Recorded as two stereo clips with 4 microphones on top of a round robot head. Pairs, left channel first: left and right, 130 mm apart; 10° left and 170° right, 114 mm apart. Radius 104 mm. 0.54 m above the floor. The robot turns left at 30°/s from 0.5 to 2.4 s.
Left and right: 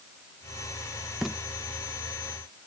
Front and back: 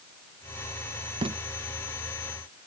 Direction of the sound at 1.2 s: 175° right.